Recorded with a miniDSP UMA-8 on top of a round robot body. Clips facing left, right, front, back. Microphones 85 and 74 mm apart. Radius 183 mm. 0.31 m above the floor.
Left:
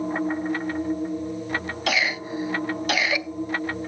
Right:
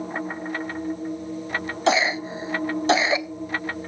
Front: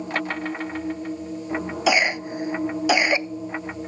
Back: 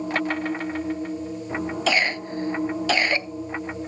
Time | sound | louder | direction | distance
1.9 | a cough | right 5 dB, front 4 dB | 65° right | 1.0 m